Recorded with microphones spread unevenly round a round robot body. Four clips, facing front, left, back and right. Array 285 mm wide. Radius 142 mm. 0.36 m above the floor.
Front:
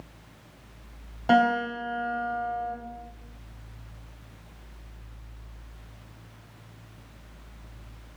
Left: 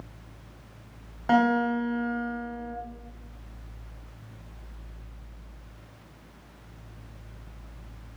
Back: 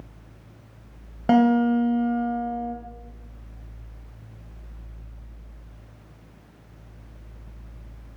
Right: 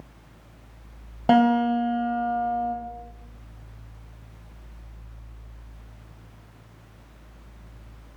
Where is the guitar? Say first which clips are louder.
Right 4 dB, back 4 dB; 130° right, 1.7 m.